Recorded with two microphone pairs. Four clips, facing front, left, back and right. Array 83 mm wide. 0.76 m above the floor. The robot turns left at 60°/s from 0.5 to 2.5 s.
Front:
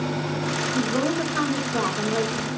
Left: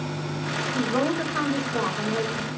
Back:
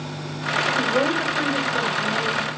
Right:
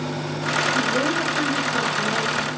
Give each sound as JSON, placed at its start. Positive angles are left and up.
{"t": 0.8, "sound": "a woman speaking", "azimuth_deg": 90, "distance_m": 7.0}